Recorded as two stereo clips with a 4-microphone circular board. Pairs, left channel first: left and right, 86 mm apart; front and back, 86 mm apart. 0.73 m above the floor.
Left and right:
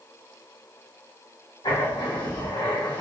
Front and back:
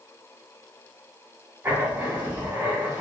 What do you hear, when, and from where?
1.6 s writing: 110° left, 2 m